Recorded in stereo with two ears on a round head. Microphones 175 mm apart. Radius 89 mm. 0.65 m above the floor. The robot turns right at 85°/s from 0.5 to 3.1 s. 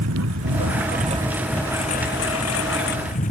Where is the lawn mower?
85° right; by 3.3 s 140° left.